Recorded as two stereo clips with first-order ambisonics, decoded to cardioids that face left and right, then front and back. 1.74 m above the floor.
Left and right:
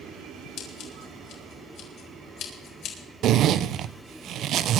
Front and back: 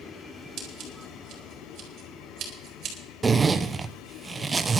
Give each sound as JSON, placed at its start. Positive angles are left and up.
{"t": 0.6, "sound": "scissors", "azimuth_deg": 130, "distance_m": 4.0}
{"t": 3.2, "sound": "a zipper", "azimuth_deg": -105, "distance_m": 0.6}